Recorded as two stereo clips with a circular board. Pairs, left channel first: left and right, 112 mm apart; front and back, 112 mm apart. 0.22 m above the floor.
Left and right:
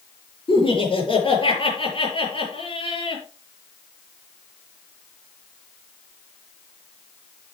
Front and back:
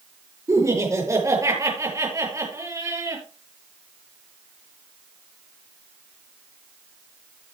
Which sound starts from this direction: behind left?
Laughter, at 0.5 s.